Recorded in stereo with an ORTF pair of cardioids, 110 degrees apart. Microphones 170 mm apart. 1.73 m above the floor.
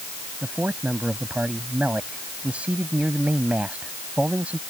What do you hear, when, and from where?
0.4 s a man speaking: 10° right